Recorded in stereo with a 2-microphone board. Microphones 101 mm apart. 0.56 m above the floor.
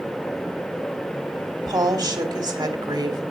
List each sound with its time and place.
1.6 s a woman speaking: 40° right (ahead or behind), 1.7 m